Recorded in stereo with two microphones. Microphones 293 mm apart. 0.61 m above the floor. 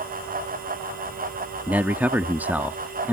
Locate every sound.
1.7 s a man speaking: 5° right (ahead or behind)